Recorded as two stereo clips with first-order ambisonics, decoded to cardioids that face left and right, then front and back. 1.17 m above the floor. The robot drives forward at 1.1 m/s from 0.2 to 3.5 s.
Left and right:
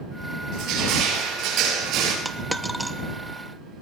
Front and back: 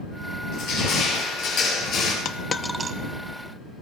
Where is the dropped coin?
Straight ahead, 0.7 m; by 3.0 s straight behind, 0.6 m.